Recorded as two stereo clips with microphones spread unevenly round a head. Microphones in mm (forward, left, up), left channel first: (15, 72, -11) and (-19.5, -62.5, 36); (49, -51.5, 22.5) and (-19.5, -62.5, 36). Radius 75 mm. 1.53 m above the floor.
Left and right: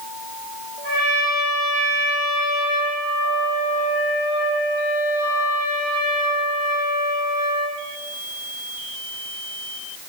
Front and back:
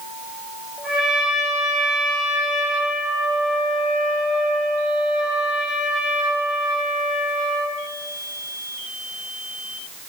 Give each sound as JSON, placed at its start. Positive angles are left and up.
{"t": 0.8, "sound": "a trumpet", "azimuth_deg": -95, "distance_m": 7.5}